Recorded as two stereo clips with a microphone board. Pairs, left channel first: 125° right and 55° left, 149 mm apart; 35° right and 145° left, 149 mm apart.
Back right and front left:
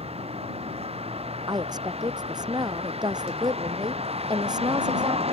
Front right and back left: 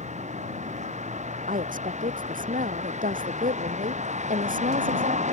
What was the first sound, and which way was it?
A vehicle, 105° left.